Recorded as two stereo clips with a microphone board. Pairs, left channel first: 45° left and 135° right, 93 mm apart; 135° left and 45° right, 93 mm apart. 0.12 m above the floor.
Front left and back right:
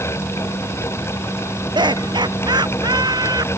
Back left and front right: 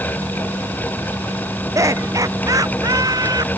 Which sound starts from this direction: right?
Laughter, at 1.8 s.